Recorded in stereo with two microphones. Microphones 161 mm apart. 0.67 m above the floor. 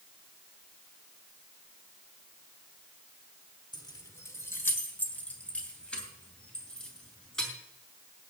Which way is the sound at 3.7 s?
30° left (ahead or behind).